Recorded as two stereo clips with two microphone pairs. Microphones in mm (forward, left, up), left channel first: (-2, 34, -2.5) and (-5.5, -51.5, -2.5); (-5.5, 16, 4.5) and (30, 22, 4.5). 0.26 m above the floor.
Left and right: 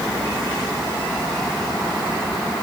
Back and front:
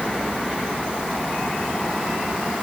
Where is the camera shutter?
I don't hear a camera shutter.